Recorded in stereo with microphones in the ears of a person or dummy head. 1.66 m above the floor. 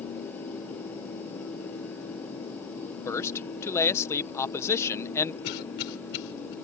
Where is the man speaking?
15° left (ahead or behind).